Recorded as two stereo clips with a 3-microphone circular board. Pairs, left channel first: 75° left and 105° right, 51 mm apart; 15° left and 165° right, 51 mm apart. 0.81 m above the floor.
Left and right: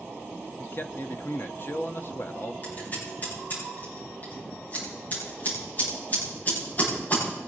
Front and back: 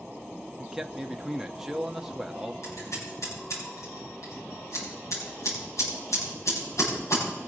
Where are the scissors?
20° left, 9.5 m.